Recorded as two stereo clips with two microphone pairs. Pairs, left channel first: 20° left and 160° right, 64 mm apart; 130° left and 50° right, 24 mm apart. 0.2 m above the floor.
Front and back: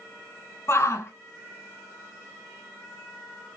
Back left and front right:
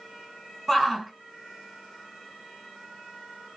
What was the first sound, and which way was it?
A shout, 45° left.